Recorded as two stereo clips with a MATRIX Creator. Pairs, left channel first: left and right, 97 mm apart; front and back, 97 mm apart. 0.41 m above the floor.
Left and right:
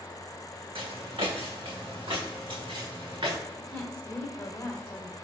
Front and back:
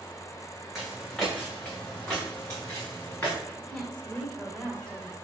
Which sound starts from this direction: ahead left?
A woman speaking, at 3.6 s.